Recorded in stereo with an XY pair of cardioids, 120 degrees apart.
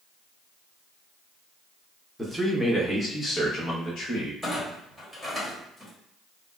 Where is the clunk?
5° left, 1.3 m.